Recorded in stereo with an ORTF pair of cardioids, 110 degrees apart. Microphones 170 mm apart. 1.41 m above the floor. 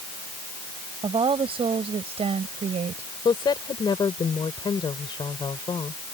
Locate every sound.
1.0 s a woman speaking: 35° right; by 3.1 s 45° right
3.2 s a woman speaking: 30° left